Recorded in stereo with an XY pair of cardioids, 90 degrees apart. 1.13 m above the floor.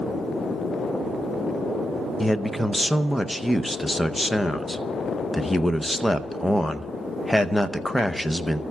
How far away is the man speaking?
About 0.8 m.